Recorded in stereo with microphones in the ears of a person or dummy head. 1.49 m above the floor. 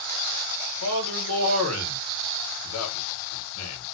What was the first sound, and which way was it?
A man speaking, 85° left.